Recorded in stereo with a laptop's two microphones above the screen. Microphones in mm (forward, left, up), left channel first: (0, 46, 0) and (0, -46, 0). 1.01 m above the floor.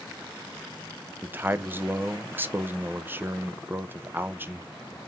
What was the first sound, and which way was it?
A man speaking, 25° right (ahead or behind).